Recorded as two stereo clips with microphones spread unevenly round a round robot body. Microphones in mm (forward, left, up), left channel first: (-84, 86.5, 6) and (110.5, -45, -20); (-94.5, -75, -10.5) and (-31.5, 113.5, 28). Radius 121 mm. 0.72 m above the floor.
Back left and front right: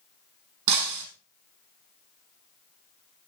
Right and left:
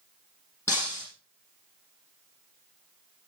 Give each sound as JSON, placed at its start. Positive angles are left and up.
{"t": 0.7, "sound": "breaking glass", "azimuth_deg": -25, "distance_m": 5.0}